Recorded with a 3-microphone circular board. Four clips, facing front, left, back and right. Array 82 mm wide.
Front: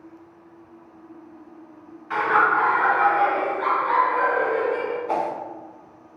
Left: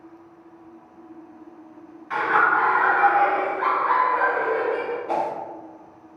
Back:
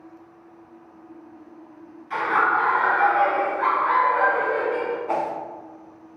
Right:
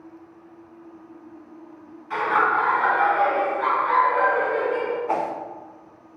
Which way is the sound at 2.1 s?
30° left.